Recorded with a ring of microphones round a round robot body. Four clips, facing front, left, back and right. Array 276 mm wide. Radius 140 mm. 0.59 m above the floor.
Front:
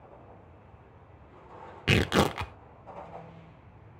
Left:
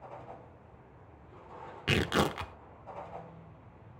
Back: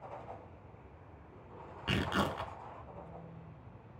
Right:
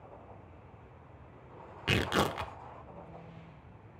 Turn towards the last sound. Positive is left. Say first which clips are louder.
# left 1 dB, front 8 dB
turn(degrees=0)